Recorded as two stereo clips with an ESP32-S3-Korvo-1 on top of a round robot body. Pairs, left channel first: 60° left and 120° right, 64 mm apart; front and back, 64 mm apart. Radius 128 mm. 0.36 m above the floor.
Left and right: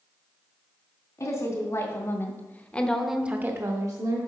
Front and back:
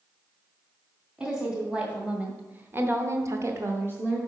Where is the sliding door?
No sliding door in this recording.